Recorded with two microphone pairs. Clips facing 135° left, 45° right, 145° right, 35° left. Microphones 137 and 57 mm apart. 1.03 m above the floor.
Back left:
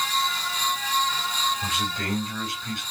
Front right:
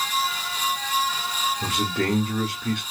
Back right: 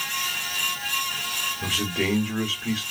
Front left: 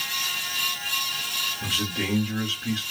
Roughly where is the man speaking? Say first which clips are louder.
Front right 5 dB, back right 4 dB; ahead right.